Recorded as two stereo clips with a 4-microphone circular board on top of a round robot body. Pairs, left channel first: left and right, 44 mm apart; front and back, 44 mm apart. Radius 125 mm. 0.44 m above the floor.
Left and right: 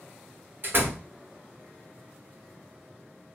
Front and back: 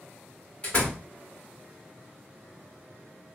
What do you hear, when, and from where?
0.6 s a door slam: 55° right, 1.7 m